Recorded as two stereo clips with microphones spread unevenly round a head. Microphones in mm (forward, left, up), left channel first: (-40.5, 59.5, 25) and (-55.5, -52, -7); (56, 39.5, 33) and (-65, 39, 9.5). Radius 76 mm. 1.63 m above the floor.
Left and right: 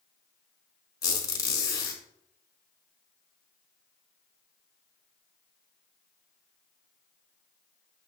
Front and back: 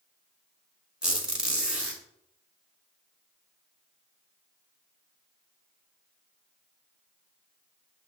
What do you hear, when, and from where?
1.0 s a squeak: 90° left, 1.5 m